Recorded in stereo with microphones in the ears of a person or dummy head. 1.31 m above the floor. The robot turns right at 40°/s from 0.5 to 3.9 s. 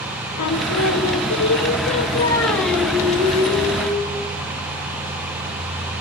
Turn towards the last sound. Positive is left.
turn(degrees=-135)